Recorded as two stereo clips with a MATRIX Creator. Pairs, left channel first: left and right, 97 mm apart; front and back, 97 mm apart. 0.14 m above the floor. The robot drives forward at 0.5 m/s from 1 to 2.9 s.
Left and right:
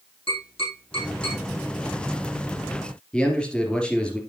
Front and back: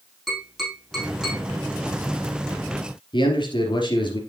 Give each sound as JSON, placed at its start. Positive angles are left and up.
{"t": 0.3, "sound": "tapping", "azimuth_deg": 90, "distance_m": 5.5}
{"t": 3.1, "sound": "a man speaking", "azimuth_deg": 10, "distance_m": 2.5}